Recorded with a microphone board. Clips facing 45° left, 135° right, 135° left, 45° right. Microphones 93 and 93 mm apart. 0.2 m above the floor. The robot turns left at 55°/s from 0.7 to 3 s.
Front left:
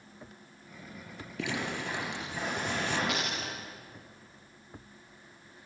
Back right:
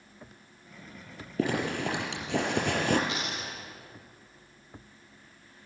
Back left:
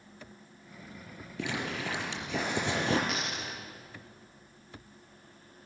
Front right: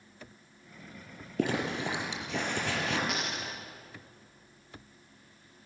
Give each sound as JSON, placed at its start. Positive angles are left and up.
{"t": 1.4, "sound": "a zipper", "azimuth_deg": -85, "distance_m": 4.0}
{"t": 3.1, "sound": "a dropped coin", "azimuth_deg": 45, "distance_m": 5.5}